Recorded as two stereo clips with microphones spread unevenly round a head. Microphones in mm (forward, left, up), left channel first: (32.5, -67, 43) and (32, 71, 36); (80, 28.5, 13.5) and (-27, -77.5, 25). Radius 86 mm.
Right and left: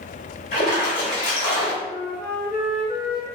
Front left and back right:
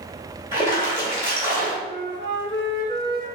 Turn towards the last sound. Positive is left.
turn(degrees=-75)